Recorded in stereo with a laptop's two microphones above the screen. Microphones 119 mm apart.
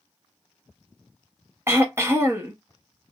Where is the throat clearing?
20° right (ahead or behind), 0.5 m.